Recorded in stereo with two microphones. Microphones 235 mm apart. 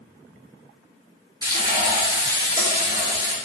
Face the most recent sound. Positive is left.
turn(degrees=-15)  # may be behind; listen again after turning